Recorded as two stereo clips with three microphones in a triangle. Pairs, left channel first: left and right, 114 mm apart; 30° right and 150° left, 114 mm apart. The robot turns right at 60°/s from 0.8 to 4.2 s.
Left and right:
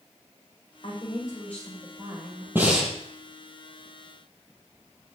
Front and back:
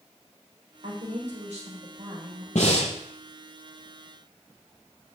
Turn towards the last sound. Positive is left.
turn(degrees=80)